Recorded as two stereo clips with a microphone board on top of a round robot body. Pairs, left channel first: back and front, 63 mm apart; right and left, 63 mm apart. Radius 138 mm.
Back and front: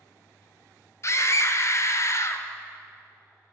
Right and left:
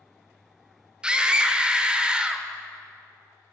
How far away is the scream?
About 1.4 m.